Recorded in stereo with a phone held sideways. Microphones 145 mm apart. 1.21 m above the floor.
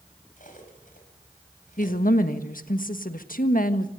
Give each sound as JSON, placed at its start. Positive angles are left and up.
{"t": 0.4, "sound": "cutlery clinking", "side_deg": 65, "distance_m": 5.0}
{"t": 1.8, "sound": "a woman speaking", "side_deg": 70, "distance_m": 1.5}